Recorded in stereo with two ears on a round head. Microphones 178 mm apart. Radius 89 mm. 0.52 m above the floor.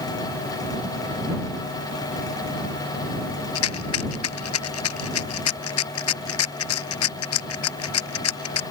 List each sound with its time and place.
3.5 s a rattle: 85° left